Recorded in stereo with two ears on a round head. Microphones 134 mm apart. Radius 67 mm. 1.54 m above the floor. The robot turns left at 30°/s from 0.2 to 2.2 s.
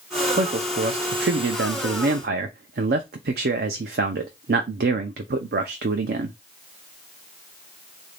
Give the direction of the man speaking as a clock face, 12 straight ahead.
2 o'clock.